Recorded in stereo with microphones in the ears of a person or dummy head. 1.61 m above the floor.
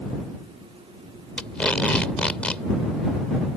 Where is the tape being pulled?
10° left (ahead or behind).